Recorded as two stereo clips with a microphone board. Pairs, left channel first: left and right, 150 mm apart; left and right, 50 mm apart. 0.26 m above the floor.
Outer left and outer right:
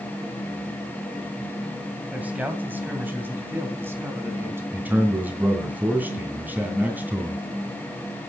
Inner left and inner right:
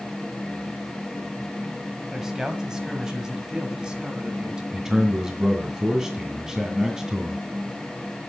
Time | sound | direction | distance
2.1 | a man speaking | 10° right (ahead or behind) | 1.7 m
4.7 | a man speaking | 10° right (ahead or behind) | 2.5 m